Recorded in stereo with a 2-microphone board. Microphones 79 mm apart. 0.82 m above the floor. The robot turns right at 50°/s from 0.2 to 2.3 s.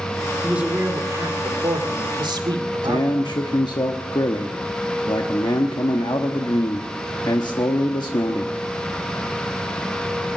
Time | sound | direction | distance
0.4 | a man speaking | 170° right | 2 m
2.8 | a man speaking | 65° left (ahead or behind) | 1.0 m